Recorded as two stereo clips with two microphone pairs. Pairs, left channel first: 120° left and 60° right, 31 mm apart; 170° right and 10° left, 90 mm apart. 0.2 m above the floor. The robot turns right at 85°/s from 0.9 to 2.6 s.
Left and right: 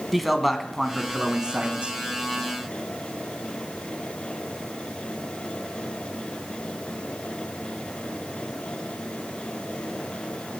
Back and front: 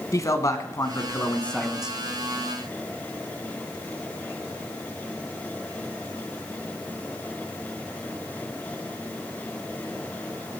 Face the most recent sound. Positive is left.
turn(degrees=0)